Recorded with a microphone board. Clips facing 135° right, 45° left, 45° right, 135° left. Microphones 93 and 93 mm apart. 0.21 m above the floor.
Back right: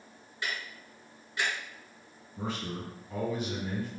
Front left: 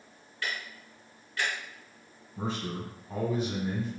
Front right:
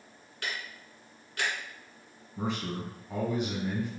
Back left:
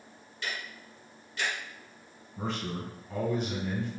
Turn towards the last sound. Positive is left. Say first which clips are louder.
# front left 2 dB, front right 1 dB
turn(degrees=25)